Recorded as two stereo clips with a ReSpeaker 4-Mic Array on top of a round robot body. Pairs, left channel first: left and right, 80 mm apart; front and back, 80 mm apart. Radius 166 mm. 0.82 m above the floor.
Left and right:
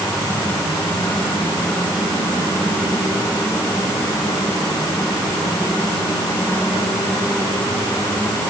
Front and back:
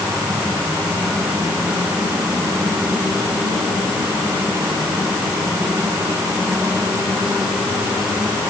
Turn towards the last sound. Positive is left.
No sound to turn to.